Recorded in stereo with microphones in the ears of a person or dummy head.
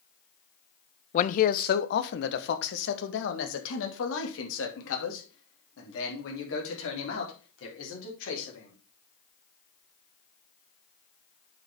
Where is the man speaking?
45° left (ahead or behind), 0.7 m; by 8.7 s 80° left, 5 m.